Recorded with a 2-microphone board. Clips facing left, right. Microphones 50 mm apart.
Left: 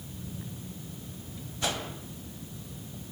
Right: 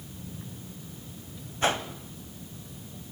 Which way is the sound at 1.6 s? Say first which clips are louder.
Right 6 dB; 35° right (ahead or behind).